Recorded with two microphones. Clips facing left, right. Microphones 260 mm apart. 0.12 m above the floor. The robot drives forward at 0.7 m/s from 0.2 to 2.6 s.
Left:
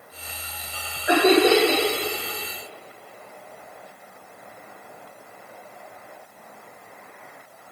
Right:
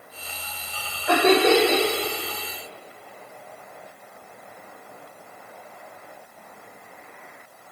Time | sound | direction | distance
1.1 | laughter | 15° left (ahead or behind) | 6.5 m